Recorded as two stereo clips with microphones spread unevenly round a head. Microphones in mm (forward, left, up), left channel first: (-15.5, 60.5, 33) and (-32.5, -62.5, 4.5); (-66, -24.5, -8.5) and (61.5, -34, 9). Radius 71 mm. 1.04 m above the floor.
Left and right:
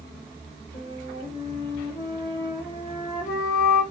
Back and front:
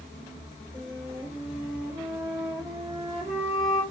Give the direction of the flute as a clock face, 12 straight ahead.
10 o'clock.